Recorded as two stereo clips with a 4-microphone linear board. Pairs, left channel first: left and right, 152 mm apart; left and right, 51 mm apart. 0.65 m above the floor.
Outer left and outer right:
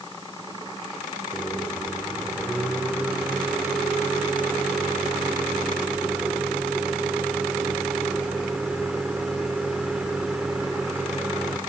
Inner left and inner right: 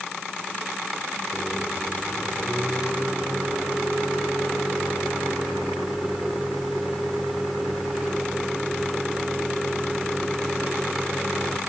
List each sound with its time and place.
1.3 s a microwave: 5° right (ahead or behind), 1.3 m